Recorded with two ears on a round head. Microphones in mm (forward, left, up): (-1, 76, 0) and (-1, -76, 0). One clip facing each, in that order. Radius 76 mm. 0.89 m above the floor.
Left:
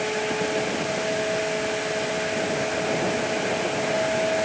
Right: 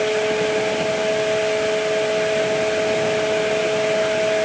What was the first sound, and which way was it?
Only background noise.